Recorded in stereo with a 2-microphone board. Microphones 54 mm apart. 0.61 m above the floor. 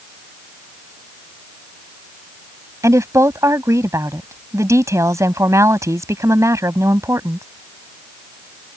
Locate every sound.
2.8 s a woman speaking: 65° right (ahead or behind)